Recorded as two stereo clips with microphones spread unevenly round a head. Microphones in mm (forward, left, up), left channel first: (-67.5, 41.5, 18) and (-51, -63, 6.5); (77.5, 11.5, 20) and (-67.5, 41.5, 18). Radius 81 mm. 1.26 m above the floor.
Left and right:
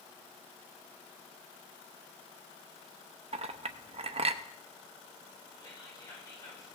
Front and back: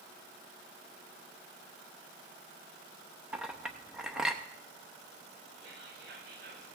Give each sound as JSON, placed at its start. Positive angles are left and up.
{"t": 3.3, "sound": "a clink", "azimuth_deg": -105, "distance_m": 0.8}
{"t": 5.6, "sound": "whispering", "azimuth_deg": 155, "distance_m": 8.0}